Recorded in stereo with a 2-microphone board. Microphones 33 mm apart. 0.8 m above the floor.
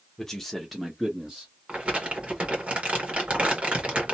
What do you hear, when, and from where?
0.2 s a man speaking: 15° left (ahead or behind), 1.0 m; by 1.5 s 15° right (ahead or behind), 1.3 m
1.7 s crumpling: 35° right (ahead or behind), 1.2 m